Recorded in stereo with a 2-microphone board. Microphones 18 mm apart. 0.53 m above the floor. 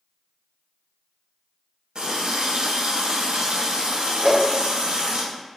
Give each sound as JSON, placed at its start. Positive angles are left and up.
{"t": 1.9, "sound": "a running tap", "side_deg": -60, "distance_m": 0.9}
{"t": 4.2, "sound": "a whoosh", "side_deg": -55, "distance_m": 0.8}